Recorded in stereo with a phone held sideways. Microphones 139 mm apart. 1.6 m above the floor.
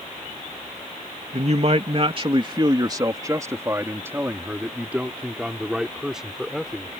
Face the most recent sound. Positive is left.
turn(degrees=0)  # may be behind; listen again after turning